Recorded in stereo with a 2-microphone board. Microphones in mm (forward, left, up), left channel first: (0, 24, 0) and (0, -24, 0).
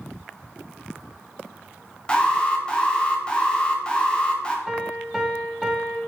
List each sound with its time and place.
2.1 s an alarm: 20° left (ahead or behind), 0.5 m
4.7 s a piano: 5° right (ahead or behind), 0.6 m